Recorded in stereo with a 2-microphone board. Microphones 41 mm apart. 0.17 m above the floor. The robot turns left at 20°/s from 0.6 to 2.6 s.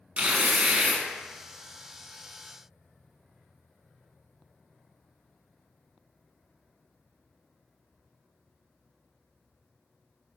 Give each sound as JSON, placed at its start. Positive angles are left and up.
{"t": 0.2, "sound": "tearing paper", "side_deg": -30, "distance_m": 0.6}